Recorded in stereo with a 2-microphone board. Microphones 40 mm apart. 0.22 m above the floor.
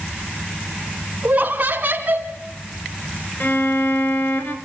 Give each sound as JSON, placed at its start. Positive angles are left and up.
{"t": 1.2, "sound": "laughter", "side_deg": -35, "distance_m": 2.0}
{"t": 3.4, "sound": "a violin", "side_deg": 45, "distance_m": 2.0}